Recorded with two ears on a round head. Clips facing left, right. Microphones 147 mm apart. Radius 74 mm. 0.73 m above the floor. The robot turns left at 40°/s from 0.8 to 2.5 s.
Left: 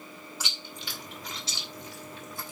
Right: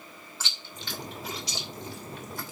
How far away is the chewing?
About 2.5 m.